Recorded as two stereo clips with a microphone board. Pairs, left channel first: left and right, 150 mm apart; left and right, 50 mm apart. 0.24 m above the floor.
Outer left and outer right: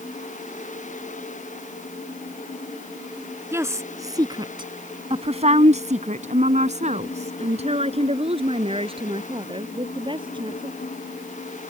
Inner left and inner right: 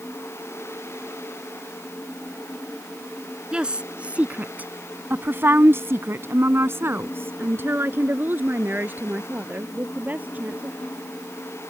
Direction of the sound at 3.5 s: 15° right (ahead or behind).